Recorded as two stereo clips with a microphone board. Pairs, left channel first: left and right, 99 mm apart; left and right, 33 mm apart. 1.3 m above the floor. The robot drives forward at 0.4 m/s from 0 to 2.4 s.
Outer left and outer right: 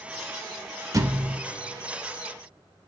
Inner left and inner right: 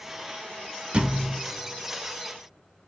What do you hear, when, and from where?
0.9 s a thud: 35° right (ahead or behind), 1.4 m